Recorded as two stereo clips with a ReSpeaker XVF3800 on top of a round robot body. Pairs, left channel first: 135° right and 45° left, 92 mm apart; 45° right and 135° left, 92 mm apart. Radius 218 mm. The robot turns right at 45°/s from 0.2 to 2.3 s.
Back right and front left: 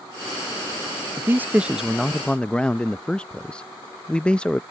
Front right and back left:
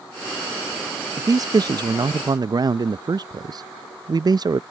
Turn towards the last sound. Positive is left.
turn(degrees=150)